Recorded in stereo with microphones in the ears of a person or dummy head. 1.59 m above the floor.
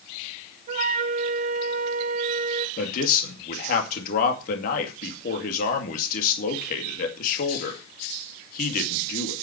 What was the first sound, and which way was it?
A flute, 40° right (ahead or behind).